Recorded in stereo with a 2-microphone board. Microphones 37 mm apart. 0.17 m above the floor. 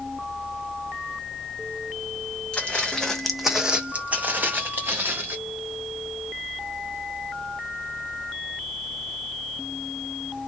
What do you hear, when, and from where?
2.5 s footsteps: 30° left (ahead or behind), 0.8 m; by 5.4 s 75° right (ahead or behind), 1.2 m